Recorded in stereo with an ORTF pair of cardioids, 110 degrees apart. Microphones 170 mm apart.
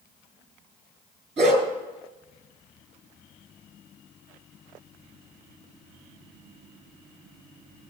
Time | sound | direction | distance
1.4 | a dog barking | 45° right | 5.5 m